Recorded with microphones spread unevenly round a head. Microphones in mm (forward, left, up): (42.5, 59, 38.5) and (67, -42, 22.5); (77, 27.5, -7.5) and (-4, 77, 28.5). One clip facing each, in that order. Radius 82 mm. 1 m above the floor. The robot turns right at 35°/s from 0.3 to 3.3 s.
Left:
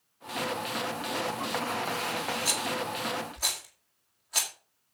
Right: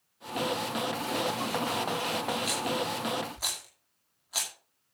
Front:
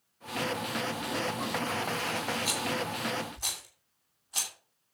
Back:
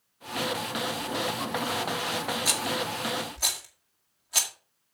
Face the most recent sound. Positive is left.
turn(degrees=-160)